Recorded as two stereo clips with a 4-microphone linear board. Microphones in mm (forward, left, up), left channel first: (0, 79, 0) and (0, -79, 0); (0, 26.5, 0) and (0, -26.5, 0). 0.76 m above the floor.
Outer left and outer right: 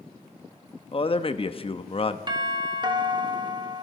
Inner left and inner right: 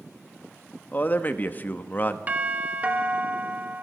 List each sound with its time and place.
0.9 s a man speaking: 35° left (ahead or behind), 0.7 m
2.3 s a doorbell: 30° right (ahead or behind), 1.3 m